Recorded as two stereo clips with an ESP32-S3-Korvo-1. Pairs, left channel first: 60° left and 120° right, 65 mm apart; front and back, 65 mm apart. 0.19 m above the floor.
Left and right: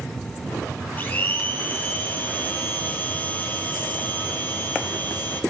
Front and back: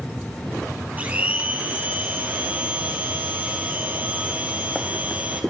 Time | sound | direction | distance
1.0 | a blender | 120° left | 2.5 m